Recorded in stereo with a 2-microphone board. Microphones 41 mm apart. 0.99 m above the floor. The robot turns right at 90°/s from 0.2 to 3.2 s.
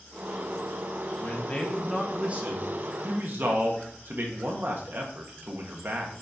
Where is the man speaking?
115° left, 1.6 m; by 6.2 s 65° right, 1.6 m.